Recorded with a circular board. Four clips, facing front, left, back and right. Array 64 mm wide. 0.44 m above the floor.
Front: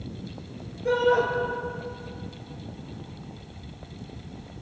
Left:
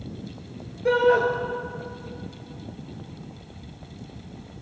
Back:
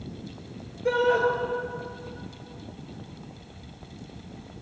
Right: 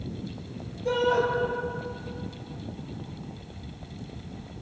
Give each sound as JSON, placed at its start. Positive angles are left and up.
{"t": 0.8, "sound": "a shout", "azimuth_deg": 100, "distance_m": 7.0}